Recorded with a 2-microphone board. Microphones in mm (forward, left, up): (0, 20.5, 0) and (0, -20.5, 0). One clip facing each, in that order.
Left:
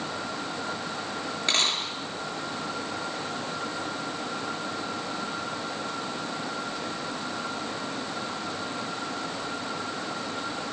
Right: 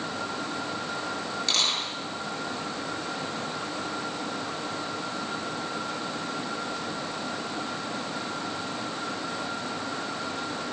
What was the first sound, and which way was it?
A dropped coin, 30° left (ahead or behind).